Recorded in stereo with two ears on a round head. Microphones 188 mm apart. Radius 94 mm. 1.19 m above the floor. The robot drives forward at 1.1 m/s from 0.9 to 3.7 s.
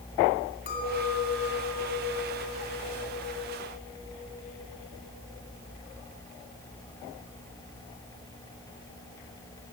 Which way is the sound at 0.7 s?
45° left (ahead or behind).